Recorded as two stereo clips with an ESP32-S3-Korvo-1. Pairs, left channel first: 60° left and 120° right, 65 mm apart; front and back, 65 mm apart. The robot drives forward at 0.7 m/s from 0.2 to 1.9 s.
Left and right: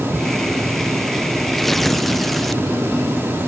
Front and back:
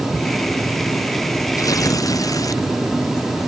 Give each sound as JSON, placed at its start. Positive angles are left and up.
{"t": 1.6, "sound": "tearing paper", "azimuth_deg": -30}